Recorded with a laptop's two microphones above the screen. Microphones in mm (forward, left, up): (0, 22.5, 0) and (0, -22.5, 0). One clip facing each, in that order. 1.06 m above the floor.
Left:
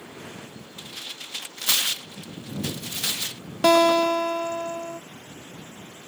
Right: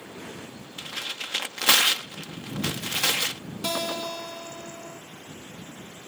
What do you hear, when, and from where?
0.8 s tearing paper: 80° right
3.6 s a guitar: 65° left (ahead or behind)